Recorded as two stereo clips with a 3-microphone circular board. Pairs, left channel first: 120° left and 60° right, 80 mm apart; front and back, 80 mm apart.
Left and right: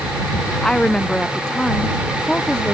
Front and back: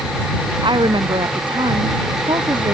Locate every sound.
0.6 s a woman speaking: 160° right